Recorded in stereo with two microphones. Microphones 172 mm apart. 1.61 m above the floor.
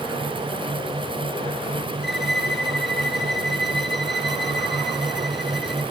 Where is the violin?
Centre (ahead or behind), 1.5 m.